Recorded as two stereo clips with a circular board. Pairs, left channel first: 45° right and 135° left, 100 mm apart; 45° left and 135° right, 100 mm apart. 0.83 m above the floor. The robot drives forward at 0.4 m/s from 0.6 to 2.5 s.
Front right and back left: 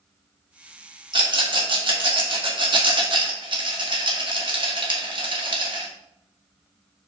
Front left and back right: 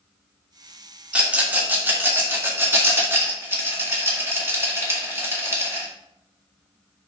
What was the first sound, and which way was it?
A rattle, 150° left.